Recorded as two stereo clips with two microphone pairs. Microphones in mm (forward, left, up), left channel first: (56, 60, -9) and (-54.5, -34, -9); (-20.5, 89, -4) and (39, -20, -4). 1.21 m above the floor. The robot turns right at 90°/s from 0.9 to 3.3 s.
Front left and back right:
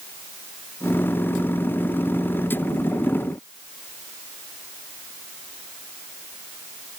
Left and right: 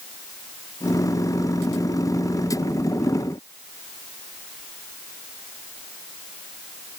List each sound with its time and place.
Only background noise.